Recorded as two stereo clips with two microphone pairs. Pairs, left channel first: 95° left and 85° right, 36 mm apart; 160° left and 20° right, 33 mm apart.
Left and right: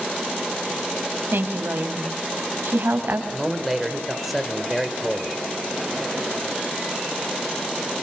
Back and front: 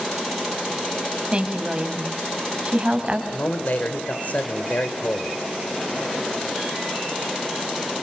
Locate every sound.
1.3 s a woman speaking: 75° right, 4 m
3.3 s a man speaking: 170° right, 2.5 m